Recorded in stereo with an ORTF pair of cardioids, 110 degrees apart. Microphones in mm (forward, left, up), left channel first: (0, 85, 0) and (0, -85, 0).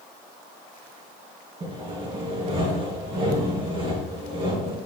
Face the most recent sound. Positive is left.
turn(degrees=-35)